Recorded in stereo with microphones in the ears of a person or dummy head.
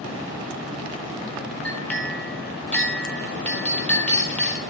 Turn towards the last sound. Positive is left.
turn(degrees=5)  # may be behind; listen again after turning